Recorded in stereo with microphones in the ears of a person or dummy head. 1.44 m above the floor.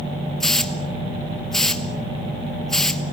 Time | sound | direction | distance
0.4 | a hiss | 5° left (ahead or behind) | 0.7 m